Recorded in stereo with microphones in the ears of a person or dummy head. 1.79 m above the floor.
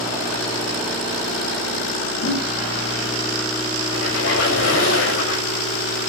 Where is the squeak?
70° left (ahead or behind), 6.5 m.